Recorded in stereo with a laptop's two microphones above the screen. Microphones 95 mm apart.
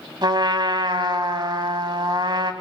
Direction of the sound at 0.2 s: 55° right (ahead or behind).